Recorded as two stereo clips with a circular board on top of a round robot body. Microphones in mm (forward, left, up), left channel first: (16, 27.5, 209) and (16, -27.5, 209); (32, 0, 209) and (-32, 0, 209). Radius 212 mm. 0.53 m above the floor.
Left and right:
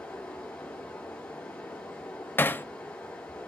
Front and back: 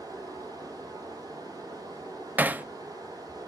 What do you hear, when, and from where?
0.0 s running water: 155° left, 0.9 m
2.4 s hammering: 125° left, 0.6 m